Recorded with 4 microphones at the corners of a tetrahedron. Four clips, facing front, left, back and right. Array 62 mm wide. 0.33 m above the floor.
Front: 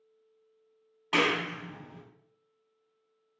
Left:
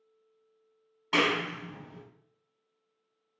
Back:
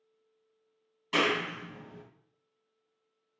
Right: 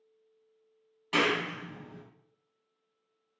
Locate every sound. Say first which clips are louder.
1.1 s a clap: left 1 dB, front 1 dB; 25° left, 2 m